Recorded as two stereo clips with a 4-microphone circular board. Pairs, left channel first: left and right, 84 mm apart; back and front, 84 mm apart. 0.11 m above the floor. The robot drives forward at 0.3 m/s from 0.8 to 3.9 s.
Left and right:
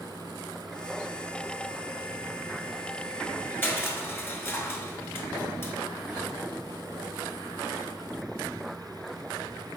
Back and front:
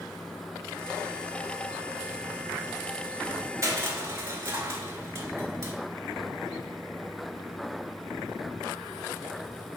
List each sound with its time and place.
3.6 s crushing: 35° left, 0.7 m; by 5.8 s 40° left, 0.6 m